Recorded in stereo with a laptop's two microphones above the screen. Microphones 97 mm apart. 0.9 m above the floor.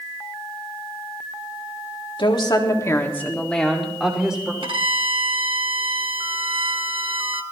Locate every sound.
2.2 s a woman speaking: 55° left (ahead or behind), 1.6 m; by 4.5 s 10° right (ahead or behind), 2.5 m
4.6 s a violin: 60° right (ahead or behind), 0.7 m